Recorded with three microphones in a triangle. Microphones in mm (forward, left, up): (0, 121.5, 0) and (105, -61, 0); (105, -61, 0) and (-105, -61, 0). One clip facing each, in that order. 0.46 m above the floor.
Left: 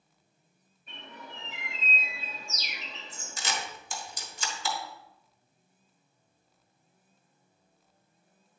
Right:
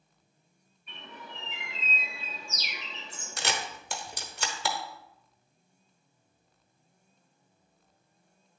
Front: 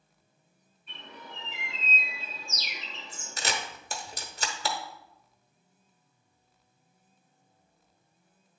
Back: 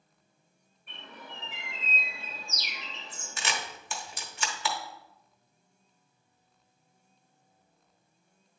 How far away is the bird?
About 2.5 m.